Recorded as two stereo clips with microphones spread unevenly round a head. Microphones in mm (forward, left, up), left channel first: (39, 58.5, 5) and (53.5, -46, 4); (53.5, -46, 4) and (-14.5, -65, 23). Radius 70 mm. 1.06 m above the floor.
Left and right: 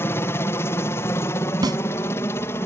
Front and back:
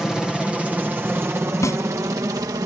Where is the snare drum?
30° right.